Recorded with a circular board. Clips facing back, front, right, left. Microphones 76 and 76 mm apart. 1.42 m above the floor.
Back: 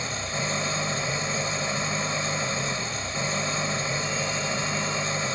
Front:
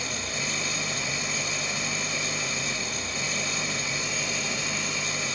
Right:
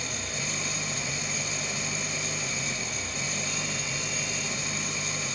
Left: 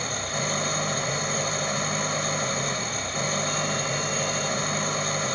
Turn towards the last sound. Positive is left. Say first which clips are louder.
# back 3 dB, left 6 dB
turn(degrees=125)